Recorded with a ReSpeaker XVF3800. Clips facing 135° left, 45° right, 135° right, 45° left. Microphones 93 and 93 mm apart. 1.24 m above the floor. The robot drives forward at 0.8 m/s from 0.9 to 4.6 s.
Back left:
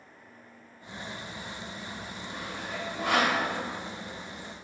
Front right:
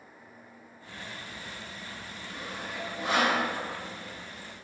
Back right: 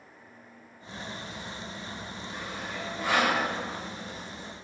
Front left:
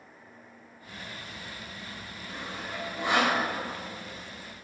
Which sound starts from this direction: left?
Sawing, at 2.3 s.